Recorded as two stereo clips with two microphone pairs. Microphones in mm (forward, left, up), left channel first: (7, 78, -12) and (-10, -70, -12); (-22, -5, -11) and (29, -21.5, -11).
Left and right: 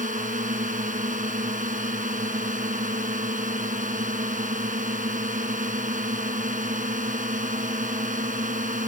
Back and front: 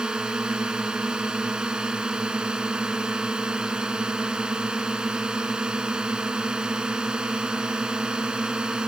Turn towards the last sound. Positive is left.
turn(degrees=-90)